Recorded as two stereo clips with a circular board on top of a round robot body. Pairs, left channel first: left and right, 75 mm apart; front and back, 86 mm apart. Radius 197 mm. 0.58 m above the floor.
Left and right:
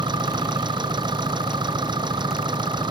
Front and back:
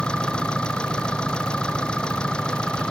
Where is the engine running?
80° right.